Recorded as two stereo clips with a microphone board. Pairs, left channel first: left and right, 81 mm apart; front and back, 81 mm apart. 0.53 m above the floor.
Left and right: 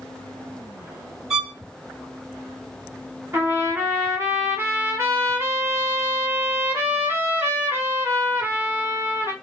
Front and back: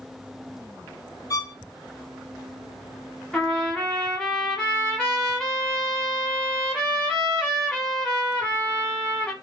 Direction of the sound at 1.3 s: 10° right.